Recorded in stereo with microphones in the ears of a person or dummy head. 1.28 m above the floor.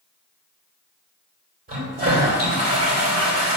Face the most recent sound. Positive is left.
turn(degrees=-45)  # may be behind; listen again after turning